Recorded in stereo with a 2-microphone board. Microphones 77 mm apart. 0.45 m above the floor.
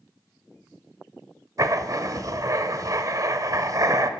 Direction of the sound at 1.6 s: 45° right (ahead or behind).